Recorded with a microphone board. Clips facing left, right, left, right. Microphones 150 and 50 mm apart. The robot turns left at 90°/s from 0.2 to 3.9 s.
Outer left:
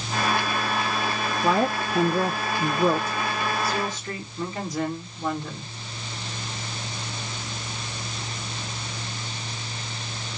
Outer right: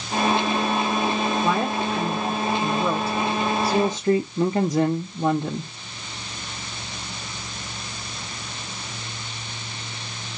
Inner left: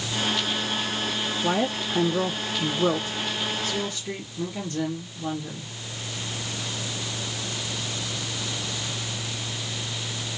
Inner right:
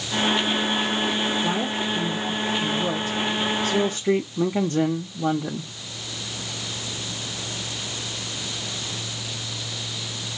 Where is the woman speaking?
175° left, 0.8 m; by 5.7 s 50° right, 0.8 m.